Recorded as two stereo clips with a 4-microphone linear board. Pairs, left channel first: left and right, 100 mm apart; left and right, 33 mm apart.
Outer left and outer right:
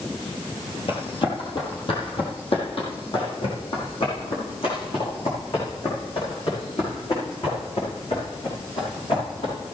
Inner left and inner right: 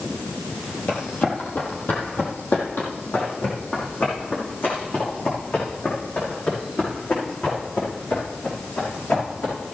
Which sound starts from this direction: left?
Running footsteps, at 0.9 s.